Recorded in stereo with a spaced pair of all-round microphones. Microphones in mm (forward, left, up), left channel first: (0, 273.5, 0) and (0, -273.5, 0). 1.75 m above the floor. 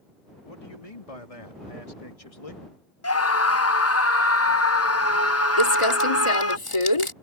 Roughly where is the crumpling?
Left.